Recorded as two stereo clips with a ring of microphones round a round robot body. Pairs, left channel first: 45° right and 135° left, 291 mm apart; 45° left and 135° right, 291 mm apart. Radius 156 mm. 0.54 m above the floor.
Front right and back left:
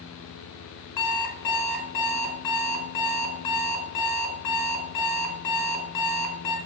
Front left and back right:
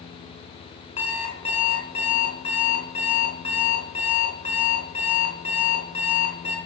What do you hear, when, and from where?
1.0 s an alarm clock: 25° right, 4 m